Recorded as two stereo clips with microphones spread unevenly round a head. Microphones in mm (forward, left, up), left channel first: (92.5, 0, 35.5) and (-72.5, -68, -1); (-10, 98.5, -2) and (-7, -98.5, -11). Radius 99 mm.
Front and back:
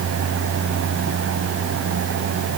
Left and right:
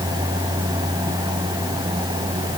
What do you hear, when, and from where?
Only background noise.